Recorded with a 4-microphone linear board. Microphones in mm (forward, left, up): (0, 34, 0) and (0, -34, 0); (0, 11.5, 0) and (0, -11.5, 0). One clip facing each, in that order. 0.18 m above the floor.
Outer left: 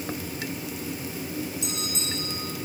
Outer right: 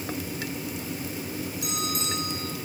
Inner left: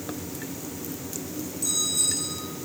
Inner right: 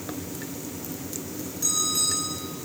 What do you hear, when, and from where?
1.6 s a bell: 55° right (ahead or behind), 6 m